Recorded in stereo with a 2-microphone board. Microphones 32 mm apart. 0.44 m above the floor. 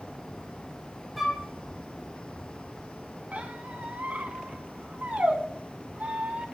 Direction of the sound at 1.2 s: 5° right (ahead or behind).